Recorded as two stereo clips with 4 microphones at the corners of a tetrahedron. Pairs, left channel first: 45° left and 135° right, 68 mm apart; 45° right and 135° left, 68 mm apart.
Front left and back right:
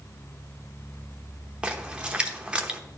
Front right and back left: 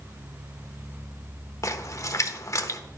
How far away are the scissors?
No scissors in this recording.